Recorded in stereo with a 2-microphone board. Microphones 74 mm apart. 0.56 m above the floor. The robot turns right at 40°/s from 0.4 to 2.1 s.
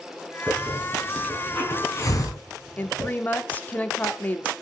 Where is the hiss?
20° right (ahead or behind), 3.5 m; by 3.1 s 45° left (ahead or behind), 3.5 m.